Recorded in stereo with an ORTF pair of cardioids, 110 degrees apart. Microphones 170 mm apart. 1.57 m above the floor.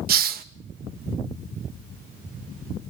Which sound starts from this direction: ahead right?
A hiss, at 0.1 s.